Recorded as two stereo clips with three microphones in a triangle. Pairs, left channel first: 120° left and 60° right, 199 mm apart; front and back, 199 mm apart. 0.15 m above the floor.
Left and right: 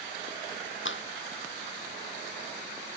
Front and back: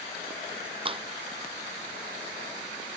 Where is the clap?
120° left.